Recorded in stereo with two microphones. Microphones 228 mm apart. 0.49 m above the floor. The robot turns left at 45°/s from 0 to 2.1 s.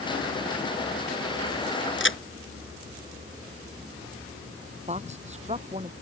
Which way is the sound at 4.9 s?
30° right (ahead or behind).